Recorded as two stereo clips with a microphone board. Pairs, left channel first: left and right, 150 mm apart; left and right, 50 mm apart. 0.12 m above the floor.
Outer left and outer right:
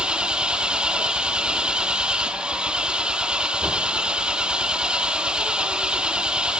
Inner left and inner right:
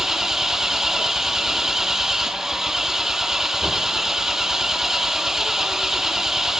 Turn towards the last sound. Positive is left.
turn(degrees=-5)  # may be behind; listen again after turning